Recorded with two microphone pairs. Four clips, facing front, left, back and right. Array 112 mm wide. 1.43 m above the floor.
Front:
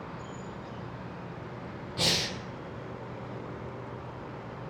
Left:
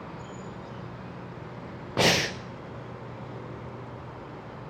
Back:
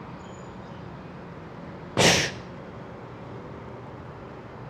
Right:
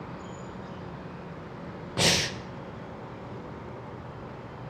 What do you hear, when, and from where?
2.0 s breathing: 160° left, 0.7 m